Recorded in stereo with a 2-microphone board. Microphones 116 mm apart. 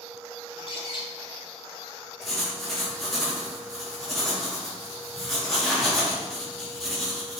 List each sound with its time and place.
0.5 s a bird: 45° left (ahead or behind), 0.6 m
2.2 s writing: 5° left (ahead or behind), 0.9 m